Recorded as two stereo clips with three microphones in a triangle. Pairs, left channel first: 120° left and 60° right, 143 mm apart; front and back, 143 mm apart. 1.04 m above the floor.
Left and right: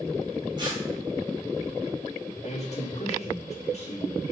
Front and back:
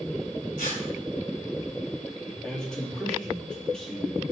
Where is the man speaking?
85° left, 2.5 m.